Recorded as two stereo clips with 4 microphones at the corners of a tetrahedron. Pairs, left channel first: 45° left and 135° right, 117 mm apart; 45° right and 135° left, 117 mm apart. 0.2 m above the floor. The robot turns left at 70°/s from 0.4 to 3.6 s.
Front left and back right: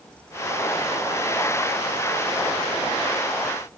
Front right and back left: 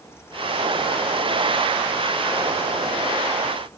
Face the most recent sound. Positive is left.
No sound to turn to.